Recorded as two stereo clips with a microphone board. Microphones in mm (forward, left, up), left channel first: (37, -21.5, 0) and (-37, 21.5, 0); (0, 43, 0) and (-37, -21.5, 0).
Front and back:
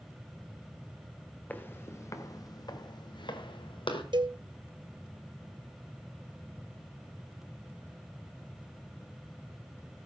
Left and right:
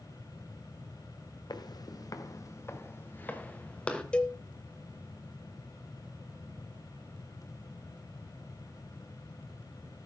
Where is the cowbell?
135° left, 1.0 m.